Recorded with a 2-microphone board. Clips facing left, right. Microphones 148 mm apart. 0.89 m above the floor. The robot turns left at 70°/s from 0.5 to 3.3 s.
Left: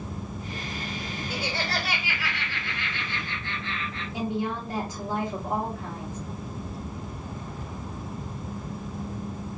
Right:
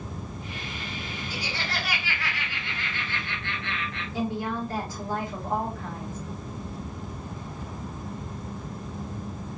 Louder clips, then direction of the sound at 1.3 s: Left 4 dB; 70° left.